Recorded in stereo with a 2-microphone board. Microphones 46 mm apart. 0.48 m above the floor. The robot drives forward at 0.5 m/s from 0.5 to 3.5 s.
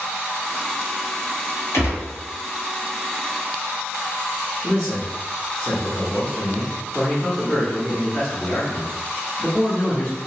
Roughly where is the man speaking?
Centre.